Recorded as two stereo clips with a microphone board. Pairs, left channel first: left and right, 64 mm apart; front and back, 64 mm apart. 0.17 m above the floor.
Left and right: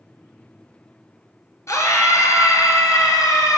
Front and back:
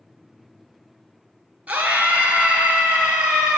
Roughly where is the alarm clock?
No alarm clock in this recording.